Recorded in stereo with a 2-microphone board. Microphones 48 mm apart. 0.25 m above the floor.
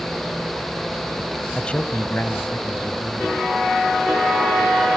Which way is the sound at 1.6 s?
15° left (ahead or behind).